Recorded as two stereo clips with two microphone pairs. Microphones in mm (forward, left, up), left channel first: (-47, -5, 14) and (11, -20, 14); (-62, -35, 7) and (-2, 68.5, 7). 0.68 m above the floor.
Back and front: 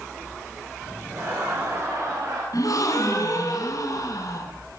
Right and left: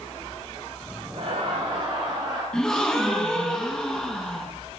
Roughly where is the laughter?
Ahead left.